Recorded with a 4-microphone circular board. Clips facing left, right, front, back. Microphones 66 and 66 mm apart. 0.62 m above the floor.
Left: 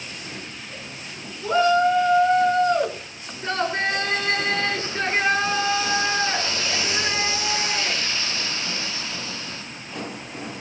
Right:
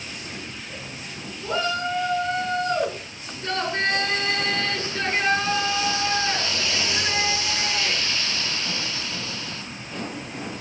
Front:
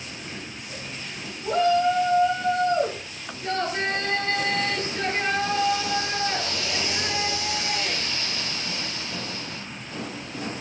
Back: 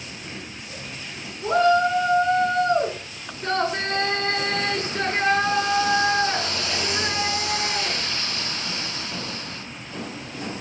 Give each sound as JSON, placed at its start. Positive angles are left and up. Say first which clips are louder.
{"t": 1.4, "sound": "a shout", "louder": "left 8 dB, back 2 dB", "azimuth_deg": 160, "distance_m": 9.0}